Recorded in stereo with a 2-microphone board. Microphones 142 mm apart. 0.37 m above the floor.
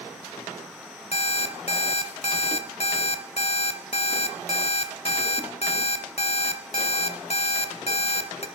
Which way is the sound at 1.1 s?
50° left (ahead or behind).